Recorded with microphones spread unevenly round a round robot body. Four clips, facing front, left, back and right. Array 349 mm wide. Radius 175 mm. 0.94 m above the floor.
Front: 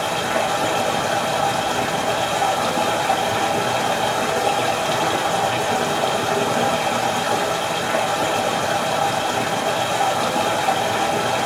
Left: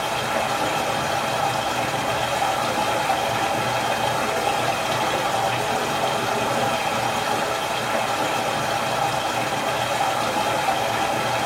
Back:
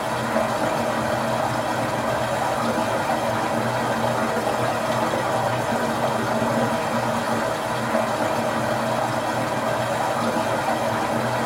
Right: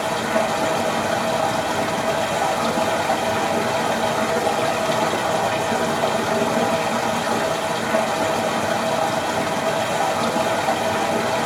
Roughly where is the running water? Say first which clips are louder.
Right 3 dB, front 1 dB; ahead right.